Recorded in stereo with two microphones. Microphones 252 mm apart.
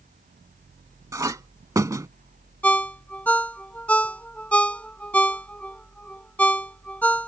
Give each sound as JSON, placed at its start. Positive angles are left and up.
{"t": 1.1, "sound": "a clink", "side_deg": -10}
{"t": 2.6, "sound": "a ringtone", "side_deg": 5}